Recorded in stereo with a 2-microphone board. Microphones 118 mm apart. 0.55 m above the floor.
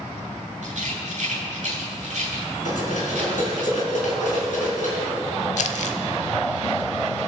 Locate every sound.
0.6 s a rattle: 75° right (ahead or behind), 4 m
2.6 s cutlery clinking: 75° left (ahead or behind), 4 m
5.6 s crumpling: 65° left (ahead or behind), 0.8 m